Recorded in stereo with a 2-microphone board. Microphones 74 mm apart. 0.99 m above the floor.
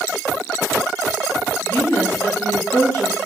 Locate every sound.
1.6 s a woman speaking: 35° left (ahead or behind), 1.8 m